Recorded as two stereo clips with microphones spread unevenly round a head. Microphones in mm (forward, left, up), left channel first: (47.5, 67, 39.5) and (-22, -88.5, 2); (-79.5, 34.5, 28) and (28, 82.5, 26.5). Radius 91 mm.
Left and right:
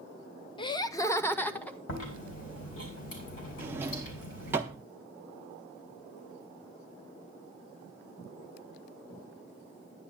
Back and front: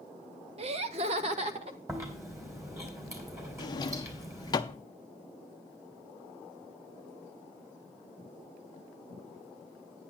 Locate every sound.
0.6 s laughter: straight ahead, 0.7 m; by 1.8 s 20° right, 1.2 m
1.9 s chewing: 90° left, 3.5 m
3.6 s a drawer: 160° left, 0.6 m